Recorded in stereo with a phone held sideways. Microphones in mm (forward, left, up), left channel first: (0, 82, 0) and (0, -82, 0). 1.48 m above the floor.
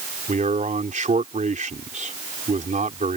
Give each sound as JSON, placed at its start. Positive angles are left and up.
{"t": 0.3, "sound": "a man speaking", "side_deg": -50}